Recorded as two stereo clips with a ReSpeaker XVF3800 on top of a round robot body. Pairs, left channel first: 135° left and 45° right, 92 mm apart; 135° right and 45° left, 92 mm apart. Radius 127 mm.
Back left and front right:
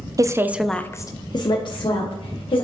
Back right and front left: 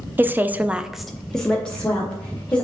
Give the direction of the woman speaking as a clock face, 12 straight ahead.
12 o'clock.